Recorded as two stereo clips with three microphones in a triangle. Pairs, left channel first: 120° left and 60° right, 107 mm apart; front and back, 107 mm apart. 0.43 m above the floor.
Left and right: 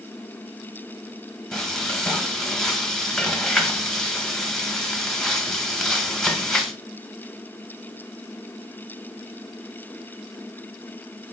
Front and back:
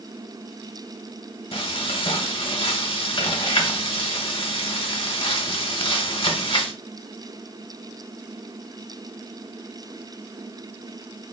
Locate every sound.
1.5 s frying: 35° left, 0.9 m